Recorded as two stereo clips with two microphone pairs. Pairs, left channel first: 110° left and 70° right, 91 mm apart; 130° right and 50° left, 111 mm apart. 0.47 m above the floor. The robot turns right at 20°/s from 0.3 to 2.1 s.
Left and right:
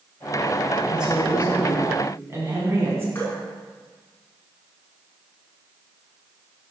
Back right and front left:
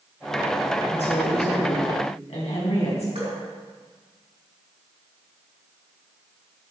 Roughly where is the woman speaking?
Behind right.